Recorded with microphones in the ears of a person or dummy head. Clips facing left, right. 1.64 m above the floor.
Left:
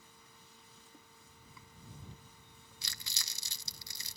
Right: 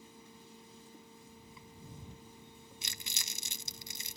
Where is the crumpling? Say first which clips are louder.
Even; 15° right (ahead or behind).